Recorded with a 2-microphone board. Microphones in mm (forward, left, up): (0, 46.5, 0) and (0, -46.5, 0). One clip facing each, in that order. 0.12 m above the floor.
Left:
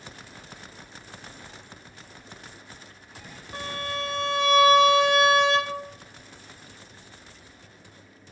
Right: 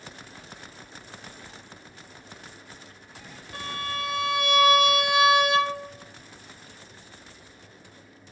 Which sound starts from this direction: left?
A violin, at 3.5 s.